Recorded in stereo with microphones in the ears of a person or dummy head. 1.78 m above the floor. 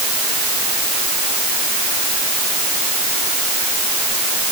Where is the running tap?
I don't hear a running tap.